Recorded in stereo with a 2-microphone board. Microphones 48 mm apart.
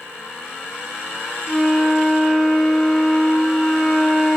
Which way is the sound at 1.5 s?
5° left (ahead or behind).